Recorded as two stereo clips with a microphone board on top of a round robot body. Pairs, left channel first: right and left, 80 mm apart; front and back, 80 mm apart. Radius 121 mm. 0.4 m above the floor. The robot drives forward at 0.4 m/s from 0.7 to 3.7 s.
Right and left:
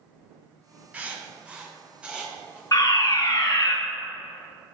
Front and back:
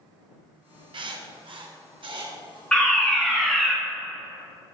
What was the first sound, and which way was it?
Writing, 165° left.